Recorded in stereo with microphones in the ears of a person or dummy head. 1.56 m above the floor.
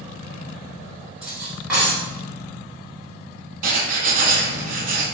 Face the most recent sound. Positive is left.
turn(degrees=-45)  # may be behind; listen again after turning